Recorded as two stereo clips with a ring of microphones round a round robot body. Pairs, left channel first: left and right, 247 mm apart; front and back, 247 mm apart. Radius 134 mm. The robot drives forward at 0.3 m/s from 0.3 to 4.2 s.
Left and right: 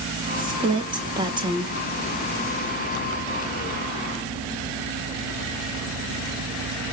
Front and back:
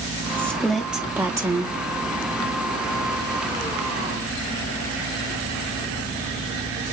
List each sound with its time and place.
0.4 s a woman speaking: 65° right, 0.9 m; by 1.8 s 135° right, 1.0 m